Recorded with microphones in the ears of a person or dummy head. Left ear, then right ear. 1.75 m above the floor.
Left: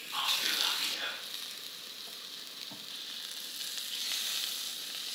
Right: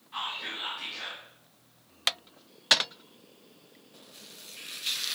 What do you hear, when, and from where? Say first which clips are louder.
0.1 s whispering: left 4 dB; 25° left (ahead or behind), 3.5 m